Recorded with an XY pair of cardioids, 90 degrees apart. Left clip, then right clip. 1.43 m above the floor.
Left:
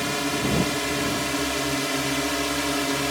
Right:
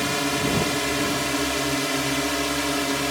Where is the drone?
15° right; by 3.1 s straight ahead.